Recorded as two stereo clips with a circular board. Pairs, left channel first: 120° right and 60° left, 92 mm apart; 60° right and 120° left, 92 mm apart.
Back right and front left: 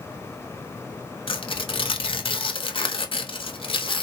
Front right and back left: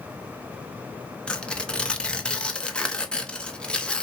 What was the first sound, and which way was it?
Tearing paper, 140° right.